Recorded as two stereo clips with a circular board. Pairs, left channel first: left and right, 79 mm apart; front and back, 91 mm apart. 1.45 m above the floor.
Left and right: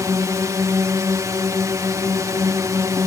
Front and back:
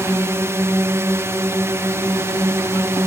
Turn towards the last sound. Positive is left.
turn(degrees=-125)